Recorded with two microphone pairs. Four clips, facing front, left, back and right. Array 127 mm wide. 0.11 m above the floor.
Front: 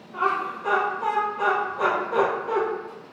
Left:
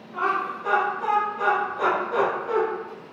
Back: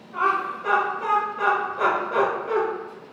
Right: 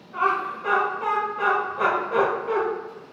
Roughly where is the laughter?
Behind right.